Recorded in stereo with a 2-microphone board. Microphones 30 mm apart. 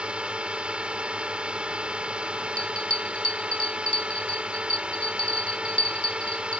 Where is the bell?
40° left (ahead or behind).